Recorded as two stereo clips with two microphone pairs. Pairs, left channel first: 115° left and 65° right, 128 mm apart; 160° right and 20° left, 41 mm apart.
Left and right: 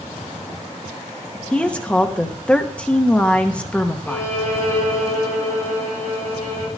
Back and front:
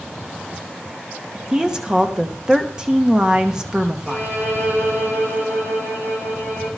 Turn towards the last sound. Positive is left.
turn(degrees=45)